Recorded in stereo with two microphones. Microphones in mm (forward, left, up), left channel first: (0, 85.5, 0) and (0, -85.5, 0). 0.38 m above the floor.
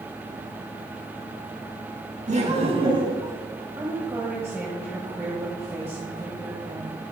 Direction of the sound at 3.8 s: 15° right (ahead or behind).